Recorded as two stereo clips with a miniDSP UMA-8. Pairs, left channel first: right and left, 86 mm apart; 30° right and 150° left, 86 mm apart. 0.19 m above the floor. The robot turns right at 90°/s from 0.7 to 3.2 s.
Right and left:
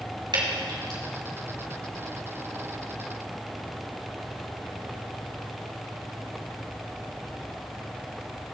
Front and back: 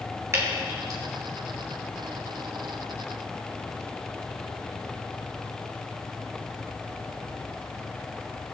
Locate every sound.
0.3 s dripping: 95° left, 3.5 m; by 1.0 s 125° left, 3.5 m